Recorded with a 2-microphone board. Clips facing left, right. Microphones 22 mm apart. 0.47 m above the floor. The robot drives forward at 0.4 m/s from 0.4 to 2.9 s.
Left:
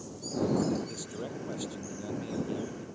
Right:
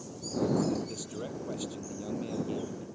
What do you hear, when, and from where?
0.7 s a man speaking: centre (ahead or behind)